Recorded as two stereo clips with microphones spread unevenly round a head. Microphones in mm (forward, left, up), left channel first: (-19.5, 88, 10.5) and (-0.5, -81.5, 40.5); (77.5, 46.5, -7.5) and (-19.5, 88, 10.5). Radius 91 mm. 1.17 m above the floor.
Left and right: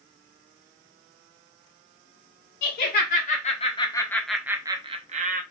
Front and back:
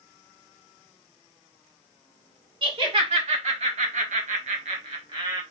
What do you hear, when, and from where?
2.6 s laughter: 120° left, 1.6 m; by 5.4 s 130° right, 1.2 m